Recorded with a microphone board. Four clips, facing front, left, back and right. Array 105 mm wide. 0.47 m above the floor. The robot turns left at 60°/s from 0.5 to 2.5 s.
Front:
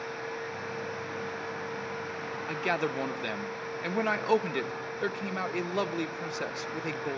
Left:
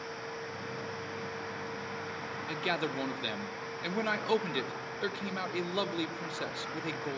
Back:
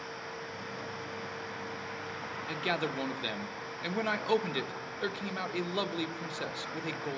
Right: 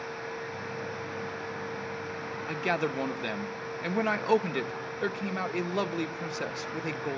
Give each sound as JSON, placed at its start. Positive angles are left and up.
{"t": 2.5, "sound": "a man speaking", "azimuth_deg": -50, "distance_m": 0.7}